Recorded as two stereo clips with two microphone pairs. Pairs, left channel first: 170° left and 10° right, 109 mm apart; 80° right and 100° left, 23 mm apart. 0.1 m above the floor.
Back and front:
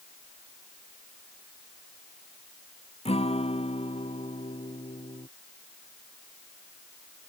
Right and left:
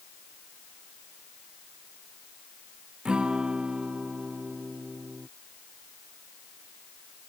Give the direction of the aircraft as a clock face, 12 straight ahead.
No aircraft in this recording.